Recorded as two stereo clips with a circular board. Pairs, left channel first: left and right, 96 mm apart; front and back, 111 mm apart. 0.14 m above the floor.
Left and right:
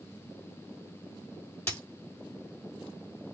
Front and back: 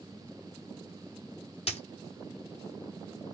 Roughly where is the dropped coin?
Ahead.